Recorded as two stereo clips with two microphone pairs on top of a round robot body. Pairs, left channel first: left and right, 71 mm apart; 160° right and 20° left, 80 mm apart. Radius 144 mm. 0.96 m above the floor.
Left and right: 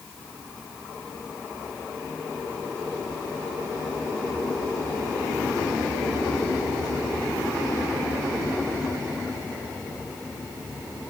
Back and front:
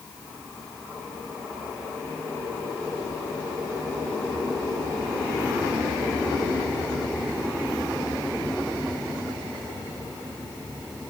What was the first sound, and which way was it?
Only background noise.